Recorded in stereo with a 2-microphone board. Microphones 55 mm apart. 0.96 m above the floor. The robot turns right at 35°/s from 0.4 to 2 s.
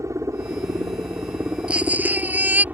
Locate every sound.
0.0 s a helicopter: 90° right; by 2.7 s 35° right
1.7 s a baby crying: 20° right (ahead or behind); by 2.6 s 30° right (ahead or behind)